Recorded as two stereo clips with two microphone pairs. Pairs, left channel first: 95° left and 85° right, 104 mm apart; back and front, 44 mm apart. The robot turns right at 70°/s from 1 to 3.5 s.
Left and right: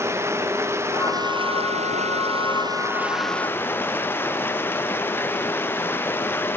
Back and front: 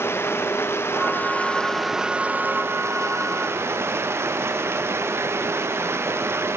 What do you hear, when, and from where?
0.0 s running water: 150° right; by 6.6 s 25° left